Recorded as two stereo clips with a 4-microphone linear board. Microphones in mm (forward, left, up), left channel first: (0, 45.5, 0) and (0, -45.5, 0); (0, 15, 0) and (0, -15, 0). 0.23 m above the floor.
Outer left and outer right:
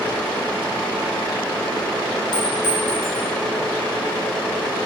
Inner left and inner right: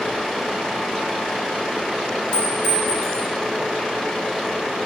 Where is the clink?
50° left (ahead or behind), 2.5 m.